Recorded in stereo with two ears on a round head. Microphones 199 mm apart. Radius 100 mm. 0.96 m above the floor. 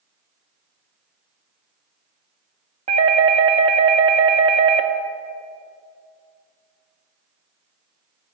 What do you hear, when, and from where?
2.9 s a doorbell: 30° right (ahead or behind), 1.1 m